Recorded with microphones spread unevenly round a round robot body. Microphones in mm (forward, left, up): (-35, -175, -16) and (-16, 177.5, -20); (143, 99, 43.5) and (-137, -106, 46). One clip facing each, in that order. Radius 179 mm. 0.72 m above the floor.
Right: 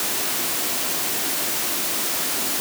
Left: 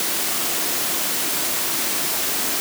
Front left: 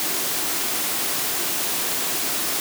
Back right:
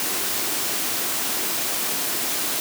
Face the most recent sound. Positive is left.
No sound to turn to.